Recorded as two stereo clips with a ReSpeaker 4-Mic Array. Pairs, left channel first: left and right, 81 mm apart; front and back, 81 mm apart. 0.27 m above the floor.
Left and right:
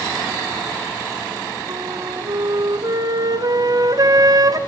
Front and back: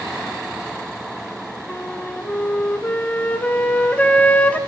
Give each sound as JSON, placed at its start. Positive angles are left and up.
{"t": 1.7, "sound": "a flute", "azimuth_deg": -70, "distance_m": 1.2}